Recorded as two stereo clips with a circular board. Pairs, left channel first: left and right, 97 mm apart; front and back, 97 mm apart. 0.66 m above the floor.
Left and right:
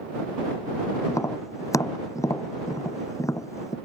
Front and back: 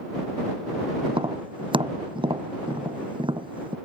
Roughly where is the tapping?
Behind left.